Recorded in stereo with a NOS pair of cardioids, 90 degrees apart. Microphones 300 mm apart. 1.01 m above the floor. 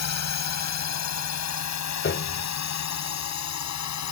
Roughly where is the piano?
Ahead left.